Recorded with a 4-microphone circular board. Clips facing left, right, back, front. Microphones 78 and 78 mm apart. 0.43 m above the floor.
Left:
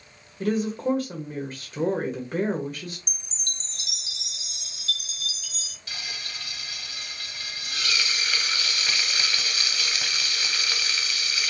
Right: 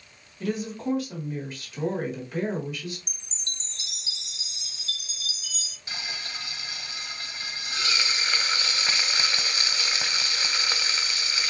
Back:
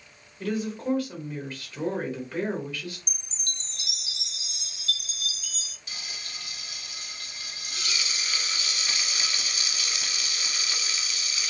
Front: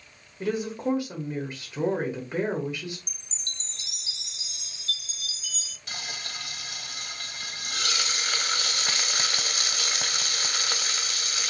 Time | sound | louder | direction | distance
0.4 | a woman speaking | left 5 dB, front 1 dB | 65° left | 1.4 m
3.1 | a chime | left 1 dB, back 1 dB | 40° right | 0.8 m
5.9 | frying | right 2 dB, front 5 dB | 20° right | 0.7 m